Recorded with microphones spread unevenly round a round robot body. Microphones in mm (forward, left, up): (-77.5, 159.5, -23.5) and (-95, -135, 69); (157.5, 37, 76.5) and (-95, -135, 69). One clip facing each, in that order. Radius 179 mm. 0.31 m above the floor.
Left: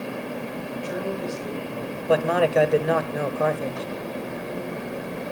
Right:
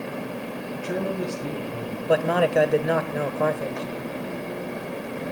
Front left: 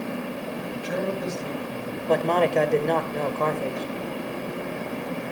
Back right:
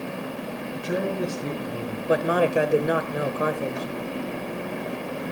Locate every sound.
0.7 s a man speaking: 115° right, 6.5 m
2.1 s a man speaking: 145° left, 1.6 m